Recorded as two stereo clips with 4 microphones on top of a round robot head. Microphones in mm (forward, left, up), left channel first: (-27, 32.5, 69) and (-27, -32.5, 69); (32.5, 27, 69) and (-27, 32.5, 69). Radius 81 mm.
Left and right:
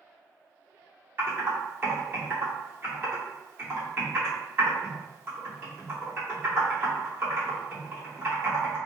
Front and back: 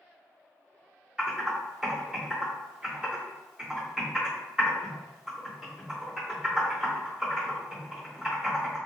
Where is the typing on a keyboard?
115° right, 1.8 m.